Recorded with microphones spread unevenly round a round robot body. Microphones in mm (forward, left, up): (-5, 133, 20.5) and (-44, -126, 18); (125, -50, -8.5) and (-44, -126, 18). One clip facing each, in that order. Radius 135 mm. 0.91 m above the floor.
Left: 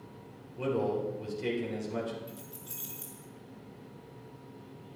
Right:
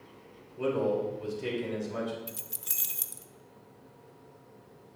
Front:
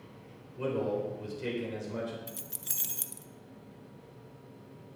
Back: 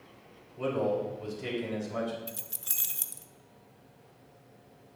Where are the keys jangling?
45° right, 0.8 m.